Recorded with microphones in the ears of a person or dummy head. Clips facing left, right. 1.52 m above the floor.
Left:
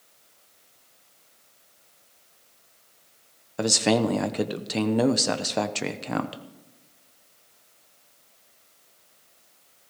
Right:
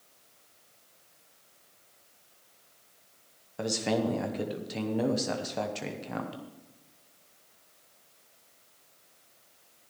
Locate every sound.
3.6 s a man speaking: 75° left (ahead or behind), 0.9 m